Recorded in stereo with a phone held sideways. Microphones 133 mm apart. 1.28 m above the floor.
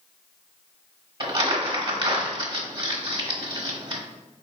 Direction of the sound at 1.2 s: 35° right (ahead or behind).